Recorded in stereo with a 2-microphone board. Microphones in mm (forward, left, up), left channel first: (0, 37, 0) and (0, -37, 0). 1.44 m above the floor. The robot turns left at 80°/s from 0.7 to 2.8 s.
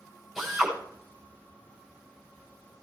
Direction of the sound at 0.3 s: 5° right (ahead or behind).